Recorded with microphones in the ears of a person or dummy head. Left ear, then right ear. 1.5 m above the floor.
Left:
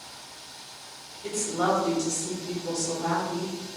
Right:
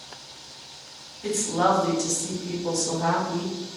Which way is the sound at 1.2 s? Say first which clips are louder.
Right 4 dB; 50° right (ahead or behind).